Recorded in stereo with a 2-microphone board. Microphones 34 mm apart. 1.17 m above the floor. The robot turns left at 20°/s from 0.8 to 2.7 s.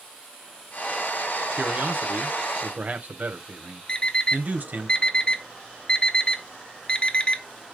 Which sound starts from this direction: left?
An alarm clock, at 3.9 s.